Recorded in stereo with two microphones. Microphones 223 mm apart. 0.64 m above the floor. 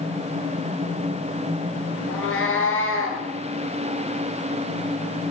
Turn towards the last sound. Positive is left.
turn(degrees=70)  # may be behind; listen again after turning